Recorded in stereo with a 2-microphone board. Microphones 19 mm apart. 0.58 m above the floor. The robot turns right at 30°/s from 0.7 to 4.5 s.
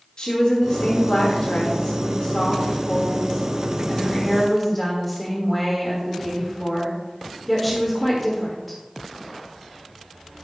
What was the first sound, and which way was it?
A woman speaking, 70° left.